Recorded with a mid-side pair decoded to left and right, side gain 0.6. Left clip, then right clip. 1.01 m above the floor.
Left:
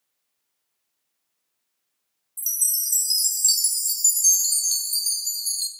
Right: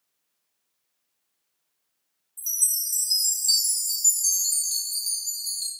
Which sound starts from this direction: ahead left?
A chime, at 2.4 s.